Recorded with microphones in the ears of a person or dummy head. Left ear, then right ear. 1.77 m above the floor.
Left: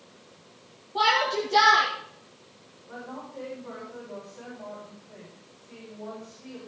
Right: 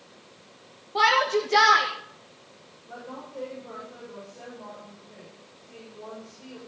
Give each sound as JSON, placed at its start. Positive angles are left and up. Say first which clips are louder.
{"t": 0.9, "sound": "a shout", "louder": "right 2 dB", "side_deg": -55, "distance_m": 2.0}
{"t": 2.9, "sound": "a woman speaking", "louder": "even", "side_deg": 0, "distance_m": 7.0}